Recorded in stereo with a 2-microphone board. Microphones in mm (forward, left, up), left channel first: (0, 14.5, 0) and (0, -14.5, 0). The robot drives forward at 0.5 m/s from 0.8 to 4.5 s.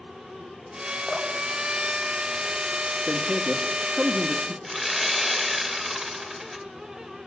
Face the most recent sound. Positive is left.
turn(degrees=0)  # may be behind; listen again after turning